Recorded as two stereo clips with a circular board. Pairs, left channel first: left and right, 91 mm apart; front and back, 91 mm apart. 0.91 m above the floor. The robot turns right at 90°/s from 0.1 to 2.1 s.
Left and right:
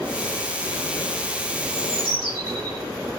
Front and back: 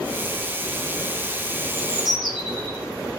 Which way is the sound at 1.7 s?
130° right.